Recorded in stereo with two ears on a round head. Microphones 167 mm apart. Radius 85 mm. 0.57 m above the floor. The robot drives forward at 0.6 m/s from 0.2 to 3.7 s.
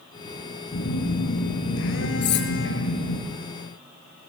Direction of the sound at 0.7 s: 80° left.